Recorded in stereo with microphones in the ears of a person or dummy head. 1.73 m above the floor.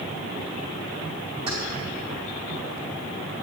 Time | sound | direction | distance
1.5 | keys jangling | 30° right (ahead or behind) | 2.5 m